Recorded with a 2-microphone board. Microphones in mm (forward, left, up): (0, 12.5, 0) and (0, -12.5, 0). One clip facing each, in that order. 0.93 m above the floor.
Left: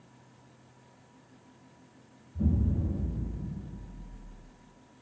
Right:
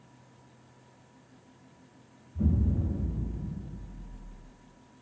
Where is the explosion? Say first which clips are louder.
Right 1 dB; 20° right (ahead or behind), 0.7 m.